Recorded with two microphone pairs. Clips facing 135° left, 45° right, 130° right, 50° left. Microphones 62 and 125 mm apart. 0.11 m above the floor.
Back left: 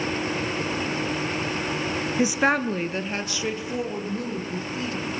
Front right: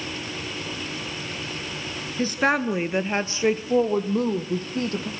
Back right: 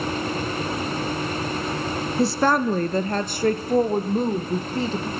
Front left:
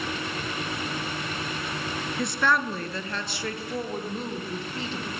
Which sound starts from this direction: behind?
A woman speaking, at 2.2 s.